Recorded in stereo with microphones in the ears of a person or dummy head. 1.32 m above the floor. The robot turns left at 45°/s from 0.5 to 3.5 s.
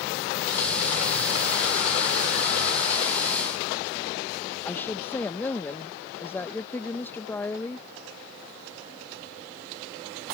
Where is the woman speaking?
10° left (ahead or behind).